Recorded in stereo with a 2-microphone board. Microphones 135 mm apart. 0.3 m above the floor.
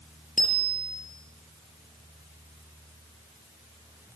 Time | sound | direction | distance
0.4 | a bicycle bell | 80° left | 5.5 m